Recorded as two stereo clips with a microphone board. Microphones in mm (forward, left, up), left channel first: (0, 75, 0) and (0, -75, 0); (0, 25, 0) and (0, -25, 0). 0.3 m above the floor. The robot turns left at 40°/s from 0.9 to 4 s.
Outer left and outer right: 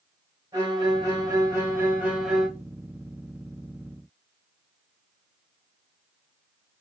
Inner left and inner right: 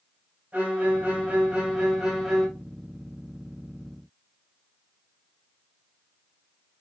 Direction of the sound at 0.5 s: 25° right (ahead or behind).